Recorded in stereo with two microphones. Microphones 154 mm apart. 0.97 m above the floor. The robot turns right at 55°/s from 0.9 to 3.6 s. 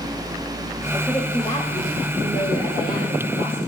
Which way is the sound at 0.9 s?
Straight ahead.